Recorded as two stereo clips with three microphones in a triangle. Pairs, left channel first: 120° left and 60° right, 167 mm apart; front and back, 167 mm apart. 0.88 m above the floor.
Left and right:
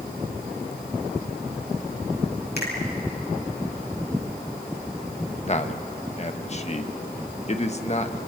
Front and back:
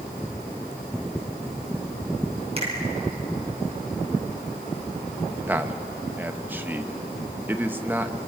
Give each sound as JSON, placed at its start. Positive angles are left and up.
{"t": 2.6, "sound": "a finger snap", "azimuth_deg": 125, "distance_m": 5.0}
{"t": 5.5, "sound": "a man speaking", "azimuth_deg": 105, "distance_m": 1.0}